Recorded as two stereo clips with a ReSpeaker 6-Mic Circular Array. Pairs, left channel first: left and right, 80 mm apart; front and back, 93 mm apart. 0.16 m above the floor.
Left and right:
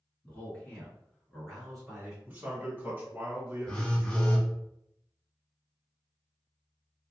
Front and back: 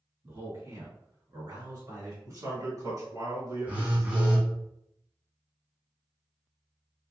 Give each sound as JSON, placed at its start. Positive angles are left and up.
{"t": 0.2, "sound": "a man speaking", "azimuth_deg": 140, "distance_m": 1.9}
{"t": 2.2, "sound": "a man speaking", "azimuth_deg": -150, "distance_m": 1.6}
{"t": 3.7, "sound": "a phone buzzing", "azimuth_deg": 145, "distance_m": 1.2}